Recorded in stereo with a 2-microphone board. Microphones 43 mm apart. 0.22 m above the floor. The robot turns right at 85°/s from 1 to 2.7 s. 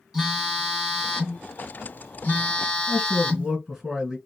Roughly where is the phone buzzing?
Ahead.